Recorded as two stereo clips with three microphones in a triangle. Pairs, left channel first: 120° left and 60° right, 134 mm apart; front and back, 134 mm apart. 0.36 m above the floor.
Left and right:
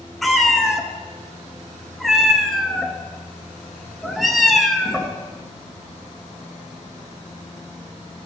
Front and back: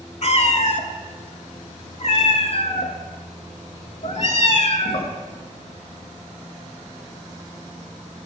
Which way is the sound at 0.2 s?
30° left.